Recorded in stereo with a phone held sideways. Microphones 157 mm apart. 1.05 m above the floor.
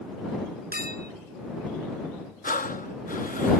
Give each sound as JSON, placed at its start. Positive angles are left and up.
{"t": 0.7, "sound": "a clink", "side_deg": -75}
{"t": 2.4, "sound": "breathing", "side_deg": 60}